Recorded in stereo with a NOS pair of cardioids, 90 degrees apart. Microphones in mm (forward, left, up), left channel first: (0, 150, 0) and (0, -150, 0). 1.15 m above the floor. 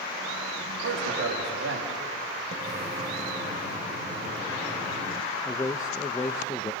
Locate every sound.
0.8 s a man speaking: 55° right, 4 m
2.5 s a splash: 35° right, 2.0 m
5.5 s a man speaking: 10° left, 1.1 m